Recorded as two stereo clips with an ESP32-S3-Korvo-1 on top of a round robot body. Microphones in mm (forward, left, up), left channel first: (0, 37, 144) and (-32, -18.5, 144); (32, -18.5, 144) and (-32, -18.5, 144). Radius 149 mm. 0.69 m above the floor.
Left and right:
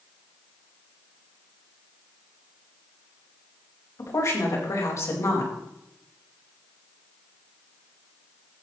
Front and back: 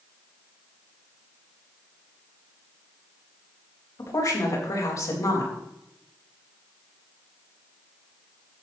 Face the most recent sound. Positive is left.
turn(degrees=25)